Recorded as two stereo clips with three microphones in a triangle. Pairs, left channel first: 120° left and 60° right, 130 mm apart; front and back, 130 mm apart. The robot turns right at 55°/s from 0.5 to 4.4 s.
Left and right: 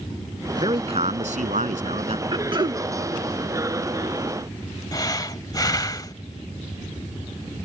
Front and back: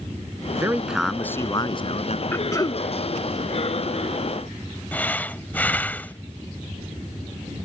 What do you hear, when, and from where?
0.6 s a man speaking: 115° right; by 2.2 s 25° right
2.3 s throat clearing: 55° right; by 2.8 s 30° right
4.9 s breathing: 75° left